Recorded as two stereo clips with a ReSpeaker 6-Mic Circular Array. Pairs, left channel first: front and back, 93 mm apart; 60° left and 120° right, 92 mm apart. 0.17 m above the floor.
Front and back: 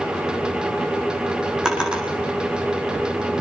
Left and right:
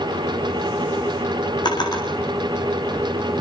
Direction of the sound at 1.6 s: 100° left.